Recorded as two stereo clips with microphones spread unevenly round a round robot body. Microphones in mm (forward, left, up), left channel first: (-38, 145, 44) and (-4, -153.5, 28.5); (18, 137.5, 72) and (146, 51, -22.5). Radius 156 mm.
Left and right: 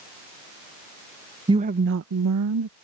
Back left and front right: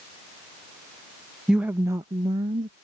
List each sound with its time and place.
1.5 s a woman speaking: 20° right; by 2.7 s 70° right